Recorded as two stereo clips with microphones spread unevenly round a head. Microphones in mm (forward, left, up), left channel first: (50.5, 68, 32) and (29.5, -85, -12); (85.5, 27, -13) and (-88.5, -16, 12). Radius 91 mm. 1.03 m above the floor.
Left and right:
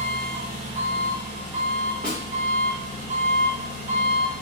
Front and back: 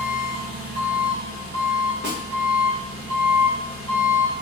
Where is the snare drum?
Straight behind, 0.9 m.